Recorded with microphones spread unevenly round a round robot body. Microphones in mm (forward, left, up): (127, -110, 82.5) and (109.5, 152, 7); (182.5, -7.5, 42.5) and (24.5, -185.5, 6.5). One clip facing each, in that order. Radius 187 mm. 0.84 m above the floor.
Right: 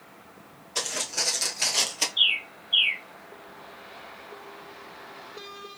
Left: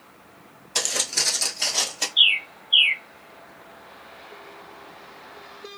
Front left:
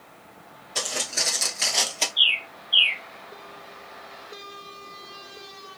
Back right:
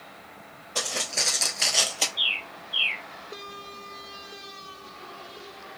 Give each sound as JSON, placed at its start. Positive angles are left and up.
{"t": 0.8, "sound": "footsteps", "azimuth_deg": 115, "distance_m": 1.0}
{"t": 2.2, "sound": "a bird", "azimuth_deg": 60, "distance_m": 0.6}